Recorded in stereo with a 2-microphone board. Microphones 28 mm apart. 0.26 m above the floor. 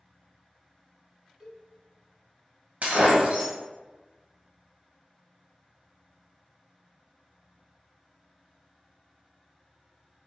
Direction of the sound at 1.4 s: 15° right (ahead or behind).